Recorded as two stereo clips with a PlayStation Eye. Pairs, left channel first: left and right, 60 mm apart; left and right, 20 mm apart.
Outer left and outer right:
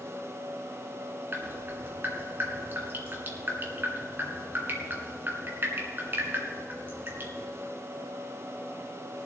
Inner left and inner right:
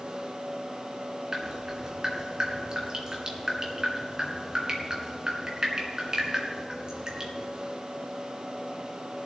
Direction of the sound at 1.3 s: 35° right (ahead or behind).